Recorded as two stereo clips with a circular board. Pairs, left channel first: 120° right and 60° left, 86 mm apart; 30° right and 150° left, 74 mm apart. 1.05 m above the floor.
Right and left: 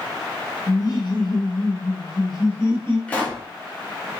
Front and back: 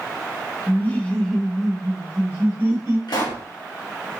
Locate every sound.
0.7 s laughter: 85° right, 0.9 m; by 3.0 s 160° right, 1.4 m
3.1 s a pop: 45° right, 0.9 m